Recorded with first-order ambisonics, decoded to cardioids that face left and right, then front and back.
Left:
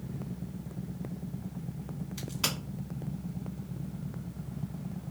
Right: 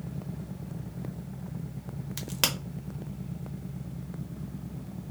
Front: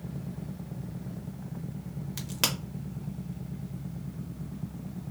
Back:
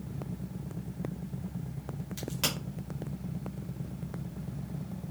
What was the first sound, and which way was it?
A crack, 65° right.